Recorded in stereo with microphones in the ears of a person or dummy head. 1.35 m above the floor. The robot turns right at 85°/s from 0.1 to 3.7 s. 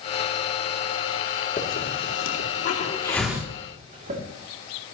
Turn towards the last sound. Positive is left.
turn(degrees=-35)  # may be behind; listen again after turning